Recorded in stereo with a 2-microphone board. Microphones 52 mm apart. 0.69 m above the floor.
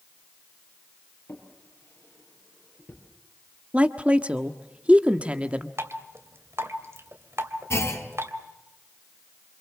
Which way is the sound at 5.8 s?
60° right (ahead or behind).